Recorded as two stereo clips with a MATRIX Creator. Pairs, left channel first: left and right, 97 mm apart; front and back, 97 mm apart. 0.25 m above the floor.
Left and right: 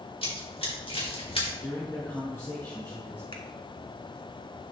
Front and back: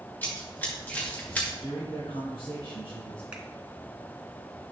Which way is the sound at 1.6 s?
25° left.